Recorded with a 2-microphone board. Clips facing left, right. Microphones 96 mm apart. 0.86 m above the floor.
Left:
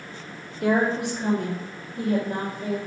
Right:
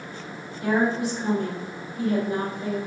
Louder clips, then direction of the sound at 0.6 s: Left 1 dB; 60° left (ahead or behind).